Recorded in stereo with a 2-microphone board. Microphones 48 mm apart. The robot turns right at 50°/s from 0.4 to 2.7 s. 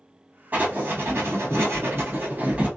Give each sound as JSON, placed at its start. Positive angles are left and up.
{"t": 0.5, "sound": "writing", "azimuth_deg": -135, "distance_m": 1.0}